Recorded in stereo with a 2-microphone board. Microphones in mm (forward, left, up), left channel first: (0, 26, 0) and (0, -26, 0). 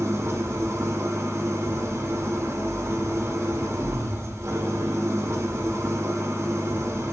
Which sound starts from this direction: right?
An engine running, at 0.0 s.